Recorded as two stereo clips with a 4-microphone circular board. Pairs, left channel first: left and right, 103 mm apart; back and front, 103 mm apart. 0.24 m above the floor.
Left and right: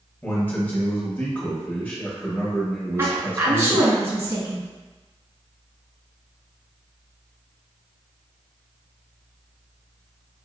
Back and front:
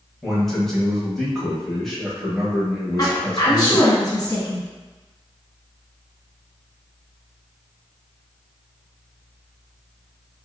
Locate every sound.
0.2 s a man speaking: 100° left, 0.9 m
3.0 s a woman speaking: 140° right, 1.6 m